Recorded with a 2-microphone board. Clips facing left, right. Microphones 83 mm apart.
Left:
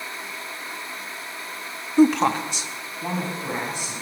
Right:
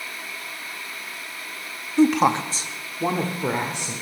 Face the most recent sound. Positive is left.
turn(degrees=-70)  # may be behind; listen again after turning